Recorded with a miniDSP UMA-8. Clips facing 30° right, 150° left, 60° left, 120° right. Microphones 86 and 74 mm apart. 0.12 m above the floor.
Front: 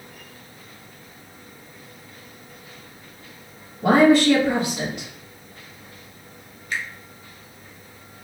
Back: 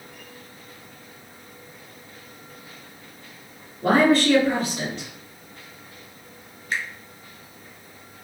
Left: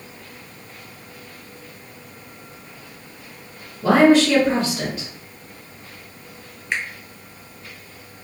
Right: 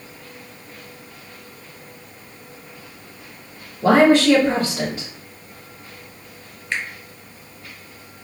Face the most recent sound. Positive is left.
turn(degrees=125)